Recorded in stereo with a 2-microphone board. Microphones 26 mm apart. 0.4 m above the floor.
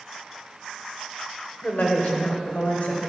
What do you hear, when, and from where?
1.6 s a woman speaking: 40° left (ahead or behind), 1.0 m; by 3.0 s 65° left (ahead or behind), 2.0 m